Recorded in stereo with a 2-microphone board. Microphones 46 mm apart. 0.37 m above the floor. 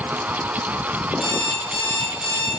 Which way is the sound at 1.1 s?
10° right (ahead or behind).